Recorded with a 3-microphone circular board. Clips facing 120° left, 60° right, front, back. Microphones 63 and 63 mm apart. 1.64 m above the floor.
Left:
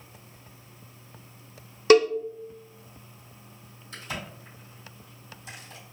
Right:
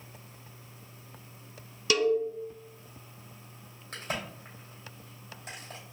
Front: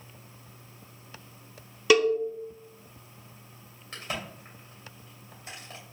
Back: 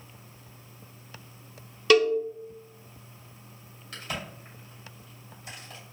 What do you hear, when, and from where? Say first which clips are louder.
1.9 s a cowbell: left 8 dB, back 1 dB; 80° left, 0.5 m
3.9 s a crack: right 1 dB, front 1 dB; 50° right, 2.5 m